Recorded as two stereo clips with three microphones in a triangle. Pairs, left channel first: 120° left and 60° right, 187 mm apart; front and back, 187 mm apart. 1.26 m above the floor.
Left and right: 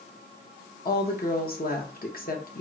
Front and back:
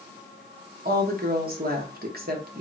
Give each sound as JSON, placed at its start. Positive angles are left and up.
{"t": 0.8, "sound": "a woman speaking", "azimuth_deg": 150, "distance_m": 0.9}